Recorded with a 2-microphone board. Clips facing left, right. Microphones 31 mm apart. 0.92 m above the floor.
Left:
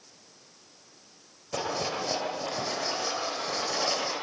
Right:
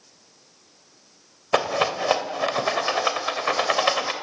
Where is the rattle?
90° right, 2.5 m.